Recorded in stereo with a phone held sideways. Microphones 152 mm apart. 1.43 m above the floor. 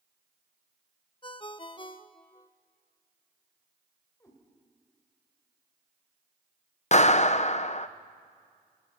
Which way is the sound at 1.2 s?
35° left (ahead or behind).